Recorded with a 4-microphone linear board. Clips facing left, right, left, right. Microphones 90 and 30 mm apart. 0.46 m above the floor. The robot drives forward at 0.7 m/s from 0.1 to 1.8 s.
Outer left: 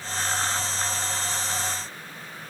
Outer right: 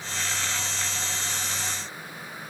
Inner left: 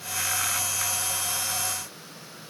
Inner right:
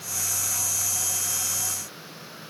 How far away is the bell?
I don't hear a bell.